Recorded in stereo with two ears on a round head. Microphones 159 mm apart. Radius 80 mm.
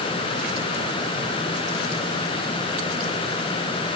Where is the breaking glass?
No breaking glass in this recording.